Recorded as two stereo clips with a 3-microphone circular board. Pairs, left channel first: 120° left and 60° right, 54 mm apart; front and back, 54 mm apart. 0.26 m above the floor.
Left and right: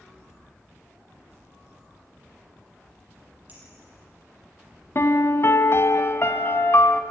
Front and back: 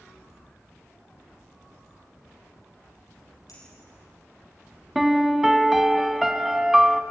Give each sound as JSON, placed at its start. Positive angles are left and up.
{"t": 3.5, "sound": "a clink", "azimuth_deg": 0, "distance_m": 5.5}
{"t": 5.0, "sound": "a piano", "azimuth_deg": 95, "distance_m": 0.9}